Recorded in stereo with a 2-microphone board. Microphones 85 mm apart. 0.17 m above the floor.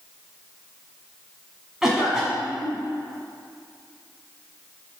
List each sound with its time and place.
1.8 s a cough: 5° right (ahead or behind), 1.4 m